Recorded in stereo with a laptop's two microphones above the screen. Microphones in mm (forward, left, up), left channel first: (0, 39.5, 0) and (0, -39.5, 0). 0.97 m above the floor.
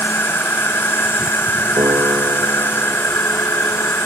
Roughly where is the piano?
Right.